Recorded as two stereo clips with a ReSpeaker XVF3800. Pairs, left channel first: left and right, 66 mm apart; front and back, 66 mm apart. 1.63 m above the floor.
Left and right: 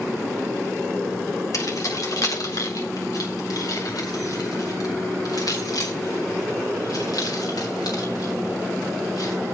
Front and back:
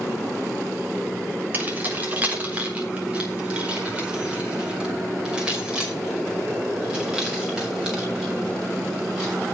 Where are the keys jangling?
120° left, 3 m; by 9.3 s 100° left, 7.5 m.